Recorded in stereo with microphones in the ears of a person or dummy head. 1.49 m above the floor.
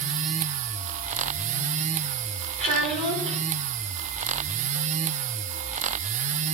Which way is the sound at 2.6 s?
35° right (ahead or behind).